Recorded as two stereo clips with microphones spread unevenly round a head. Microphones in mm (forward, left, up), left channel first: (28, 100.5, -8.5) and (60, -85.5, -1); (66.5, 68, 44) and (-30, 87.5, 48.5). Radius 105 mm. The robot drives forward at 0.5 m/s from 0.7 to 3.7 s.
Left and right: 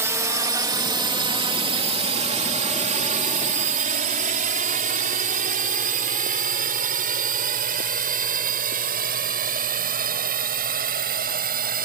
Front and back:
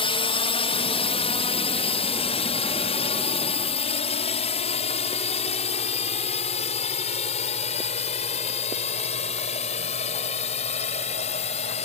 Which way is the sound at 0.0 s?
5° right.